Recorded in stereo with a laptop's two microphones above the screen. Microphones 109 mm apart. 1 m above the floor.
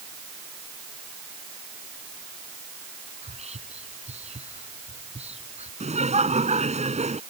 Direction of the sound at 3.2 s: 75° right (ahead or behind).